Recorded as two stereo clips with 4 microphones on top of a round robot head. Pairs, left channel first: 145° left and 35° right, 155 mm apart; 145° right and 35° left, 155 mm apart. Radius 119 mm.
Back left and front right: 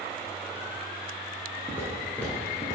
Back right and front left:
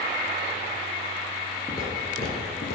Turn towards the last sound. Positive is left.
turn(degrees=-150)